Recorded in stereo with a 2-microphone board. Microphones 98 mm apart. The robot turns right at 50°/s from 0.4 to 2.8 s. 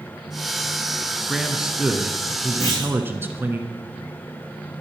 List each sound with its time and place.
1.3 s a man speaking: centre (ahead or behind), 1.1 m; by 3.6 s 20° right (ahead or behind), 1.1 m
2.6 s a clunk: 40° left (ahead or behind), 5.5 m; by 2.9 s 30° left (ahead or behind), 5.5 m